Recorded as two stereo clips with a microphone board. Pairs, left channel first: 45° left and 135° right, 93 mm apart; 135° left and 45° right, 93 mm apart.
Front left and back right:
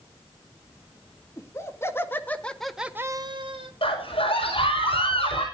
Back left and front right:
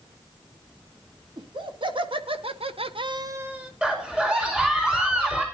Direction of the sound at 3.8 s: 35° left.